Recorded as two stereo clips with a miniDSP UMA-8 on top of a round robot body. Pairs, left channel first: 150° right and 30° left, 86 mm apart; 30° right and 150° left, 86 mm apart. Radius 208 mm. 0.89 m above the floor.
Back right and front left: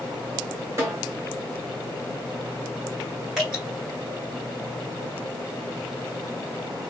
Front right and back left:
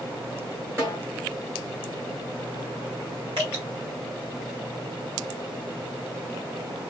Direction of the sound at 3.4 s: 115° left.